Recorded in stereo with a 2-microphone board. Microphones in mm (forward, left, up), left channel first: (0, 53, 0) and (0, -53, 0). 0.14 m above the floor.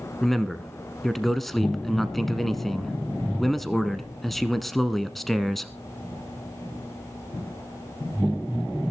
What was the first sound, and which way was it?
A man speaking, centre (ahead or behind).